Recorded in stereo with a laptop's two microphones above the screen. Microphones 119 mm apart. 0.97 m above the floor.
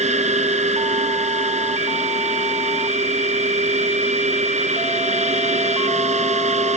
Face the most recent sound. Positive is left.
turn(degrees=-80)